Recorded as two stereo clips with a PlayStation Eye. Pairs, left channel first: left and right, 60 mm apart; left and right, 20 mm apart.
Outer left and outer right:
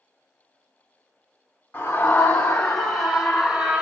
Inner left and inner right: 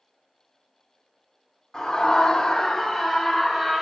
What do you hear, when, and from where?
1.7 s a scream: 30° left (ahead or behind), 1.4 m; by 3.8 s 20° right (ahead or behind), 1.3 m